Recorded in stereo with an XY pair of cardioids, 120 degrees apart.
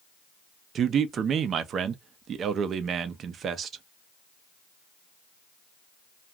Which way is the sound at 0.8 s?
50° right.